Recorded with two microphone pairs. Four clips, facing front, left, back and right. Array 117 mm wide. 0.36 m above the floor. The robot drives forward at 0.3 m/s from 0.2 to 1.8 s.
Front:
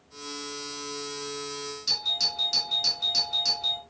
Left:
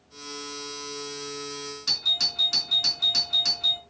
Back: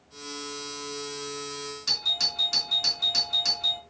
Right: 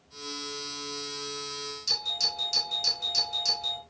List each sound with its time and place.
1.9 s a doorbell: 105° left, 5.5 m